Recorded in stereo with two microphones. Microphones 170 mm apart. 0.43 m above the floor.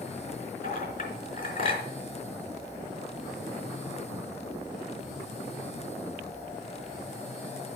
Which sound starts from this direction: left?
A clink, at 0.6 s.